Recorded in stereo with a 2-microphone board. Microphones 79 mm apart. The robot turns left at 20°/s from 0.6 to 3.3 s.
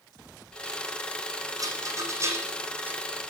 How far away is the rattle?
About 1.3 m.